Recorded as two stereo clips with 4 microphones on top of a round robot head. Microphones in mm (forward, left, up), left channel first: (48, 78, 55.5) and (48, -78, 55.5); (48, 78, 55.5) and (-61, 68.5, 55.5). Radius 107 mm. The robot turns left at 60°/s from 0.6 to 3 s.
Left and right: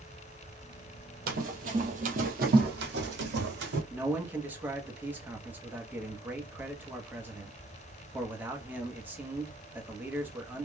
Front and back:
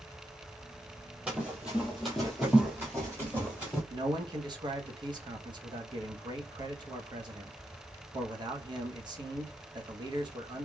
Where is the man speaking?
165° right, 1.0 m.